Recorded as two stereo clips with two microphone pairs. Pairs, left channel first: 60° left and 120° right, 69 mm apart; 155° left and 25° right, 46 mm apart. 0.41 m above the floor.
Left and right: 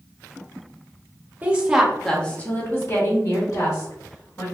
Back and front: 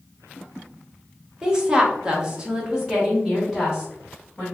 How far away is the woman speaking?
About 0.9 m.